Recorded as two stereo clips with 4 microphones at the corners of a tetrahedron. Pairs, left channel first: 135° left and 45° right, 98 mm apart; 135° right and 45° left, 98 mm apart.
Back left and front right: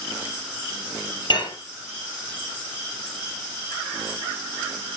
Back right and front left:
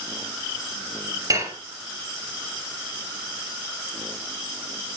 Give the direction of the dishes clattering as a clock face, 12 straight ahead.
9 o'clock.